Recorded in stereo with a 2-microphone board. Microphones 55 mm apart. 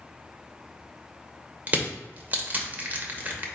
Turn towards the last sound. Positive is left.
turn(degrees=-30)  # may be behind; listen again after turning